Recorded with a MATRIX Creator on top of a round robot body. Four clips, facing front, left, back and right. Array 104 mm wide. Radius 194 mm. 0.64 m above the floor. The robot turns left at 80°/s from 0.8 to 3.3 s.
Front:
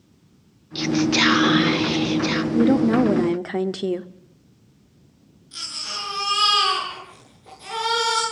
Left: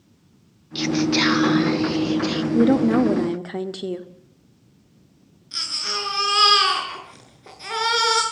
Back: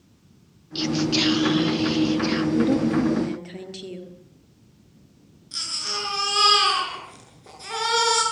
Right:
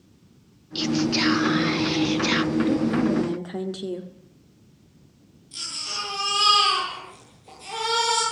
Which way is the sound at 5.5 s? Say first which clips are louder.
Left 5 dB, back 2 dB; 100° left.